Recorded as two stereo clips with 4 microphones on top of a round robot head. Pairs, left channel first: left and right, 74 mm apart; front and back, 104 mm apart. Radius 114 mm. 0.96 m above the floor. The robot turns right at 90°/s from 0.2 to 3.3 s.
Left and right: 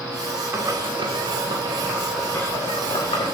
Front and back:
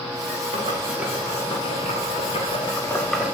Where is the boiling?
145° right, 2 m; by 3.4 s 100° left, 2 m.